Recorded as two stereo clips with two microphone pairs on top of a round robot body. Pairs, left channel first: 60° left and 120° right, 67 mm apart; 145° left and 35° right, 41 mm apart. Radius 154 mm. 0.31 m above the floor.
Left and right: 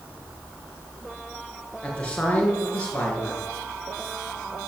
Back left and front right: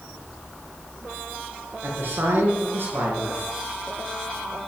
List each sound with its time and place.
1.8 s a man speaking: 10° right, 6 m